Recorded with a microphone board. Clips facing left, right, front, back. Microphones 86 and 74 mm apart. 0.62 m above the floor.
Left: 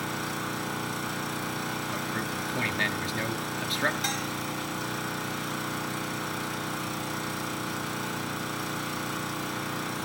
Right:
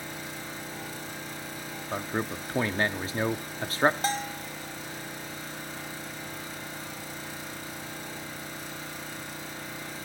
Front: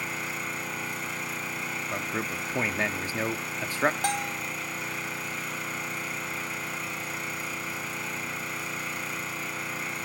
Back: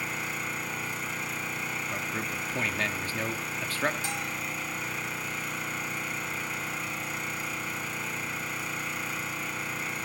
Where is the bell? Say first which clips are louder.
Right 1 dB, front 4 dB; 35° right, 0.7 m.